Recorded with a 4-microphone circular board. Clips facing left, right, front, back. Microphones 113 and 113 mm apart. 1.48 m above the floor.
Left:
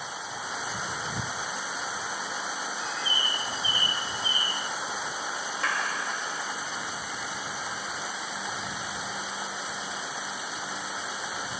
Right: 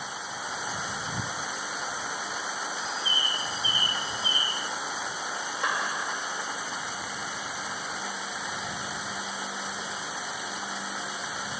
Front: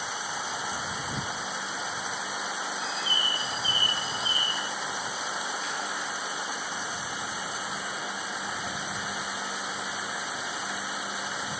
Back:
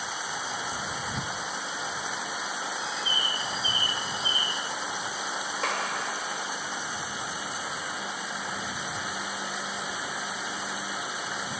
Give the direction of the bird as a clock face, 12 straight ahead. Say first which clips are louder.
Even, even; 1 o'clock.